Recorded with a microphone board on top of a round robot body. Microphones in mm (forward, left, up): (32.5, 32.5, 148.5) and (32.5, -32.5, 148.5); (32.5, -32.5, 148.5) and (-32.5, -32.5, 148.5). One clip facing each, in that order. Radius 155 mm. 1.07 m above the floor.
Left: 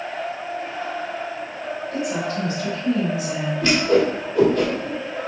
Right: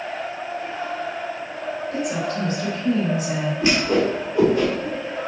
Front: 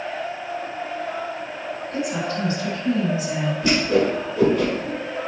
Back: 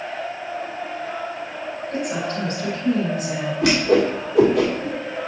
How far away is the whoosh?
About 1.8 m.